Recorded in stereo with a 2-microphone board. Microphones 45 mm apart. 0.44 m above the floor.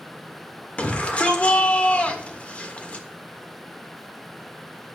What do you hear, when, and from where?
0.8 s a shout: 30° left (ahead or behind), 1.3 m